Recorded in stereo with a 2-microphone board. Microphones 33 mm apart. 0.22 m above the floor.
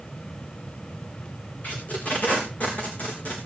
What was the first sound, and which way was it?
Tape being pulled, 45° left (ahead or behind).